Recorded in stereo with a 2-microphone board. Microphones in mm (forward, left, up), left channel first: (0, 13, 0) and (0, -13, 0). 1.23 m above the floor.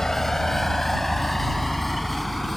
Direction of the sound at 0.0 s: 20° left (ahead or behind).